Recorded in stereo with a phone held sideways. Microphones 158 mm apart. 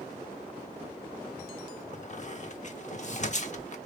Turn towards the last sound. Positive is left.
turn(degrees=50)  # may be behind; listen again after turning